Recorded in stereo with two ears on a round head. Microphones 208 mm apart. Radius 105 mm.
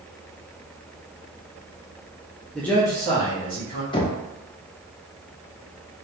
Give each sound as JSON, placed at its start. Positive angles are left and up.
{"t": 2.5, "sound": "a man speaking", "side_deg": 0, "distance_m": 0.5}
{"t": 3.9, "sound": "knocking", "side_deg": 20, "distance_m": 0.6}